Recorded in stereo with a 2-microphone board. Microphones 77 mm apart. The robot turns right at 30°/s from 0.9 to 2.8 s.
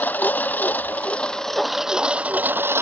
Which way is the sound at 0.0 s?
160° left.